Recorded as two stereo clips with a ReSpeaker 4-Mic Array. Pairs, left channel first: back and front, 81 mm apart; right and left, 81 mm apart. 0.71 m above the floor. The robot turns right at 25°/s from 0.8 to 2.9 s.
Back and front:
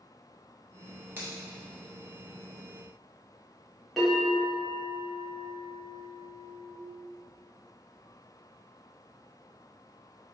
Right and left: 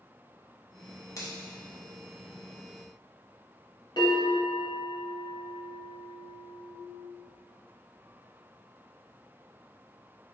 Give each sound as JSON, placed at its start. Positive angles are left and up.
{"t": 1.2, "sound": "a finger snap", "azimuth_deg": -60, "distance_m": 1.1}
{"t": 4.0, "sound": "a bell", "azimuth_deg": -90, "distance_m": 1.8}